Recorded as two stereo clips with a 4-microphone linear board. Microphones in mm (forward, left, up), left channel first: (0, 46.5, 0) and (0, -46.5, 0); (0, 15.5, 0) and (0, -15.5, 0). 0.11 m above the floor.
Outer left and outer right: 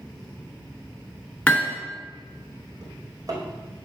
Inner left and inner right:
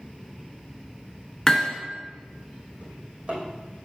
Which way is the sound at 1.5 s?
15° left (ahead or behind).